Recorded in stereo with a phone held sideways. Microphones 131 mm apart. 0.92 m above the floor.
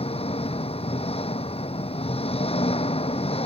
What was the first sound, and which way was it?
An engine running, 50° left (ahead or behind).